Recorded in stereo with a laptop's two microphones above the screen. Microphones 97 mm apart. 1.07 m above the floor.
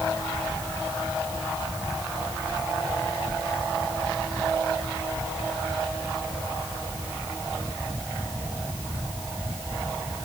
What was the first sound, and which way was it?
Only background noise.